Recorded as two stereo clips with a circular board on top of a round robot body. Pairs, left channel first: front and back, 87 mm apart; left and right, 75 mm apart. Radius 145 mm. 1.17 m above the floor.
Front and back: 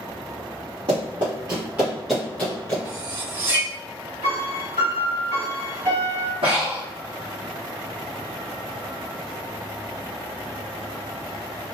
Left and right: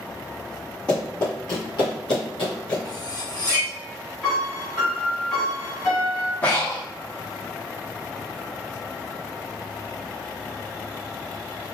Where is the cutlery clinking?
130° left, 1.3 m.